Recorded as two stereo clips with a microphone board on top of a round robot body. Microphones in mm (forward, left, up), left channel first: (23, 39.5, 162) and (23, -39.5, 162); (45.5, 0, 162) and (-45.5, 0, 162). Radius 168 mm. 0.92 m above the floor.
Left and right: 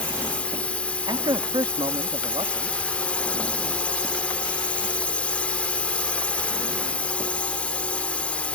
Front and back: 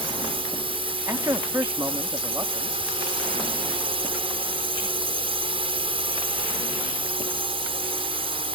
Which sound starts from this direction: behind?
A drone, at 0.0 s.